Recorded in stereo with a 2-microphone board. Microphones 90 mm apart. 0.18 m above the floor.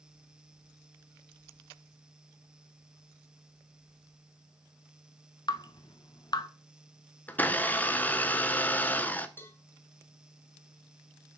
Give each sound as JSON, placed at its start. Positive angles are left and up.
{"t": 5.5, "sound": "dripping", "side_deg": 50, "distance_m": 0.6}
{"t": 7.3, "sound": "a blender", "side_deg": 20, "distance_m": 0.5}
{"t": 9.4, "sound": "a cowbell", "side_deg": 25, "distance_m": 0.9}